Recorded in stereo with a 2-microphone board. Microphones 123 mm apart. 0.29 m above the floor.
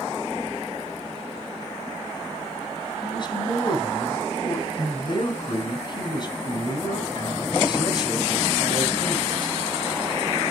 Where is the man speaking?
40° left (ahead or behind), 3 m.